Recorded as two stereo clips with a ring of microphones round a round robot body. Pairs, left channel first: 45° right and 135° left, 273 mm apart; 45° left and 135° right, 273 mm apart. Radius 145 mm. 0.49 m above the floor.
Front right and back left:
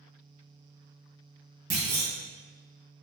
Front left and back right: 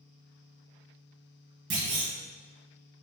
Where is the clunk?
175° left, 1.2 m.